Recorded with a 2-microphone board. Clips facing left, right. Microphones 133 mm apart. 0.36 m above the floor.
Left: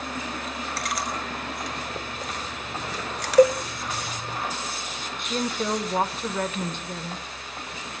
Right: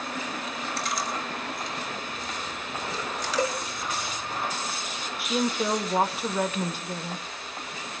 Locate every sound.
0.8 s chewing: 70° left (ahead or behind), 4.5 m
3.4 s a cowbell: 50° left (ahead or behind), 0.8 m
5.2 s a woman speaking: 5° right (ahead or behind), 0.9 m